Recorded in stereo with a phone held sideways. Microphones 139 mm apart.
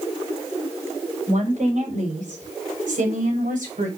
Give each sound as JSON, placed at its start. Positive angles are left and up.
{"t": 1.3, "sound": "a woman speaking", "side_deg": -65, "distance_m": 5.5}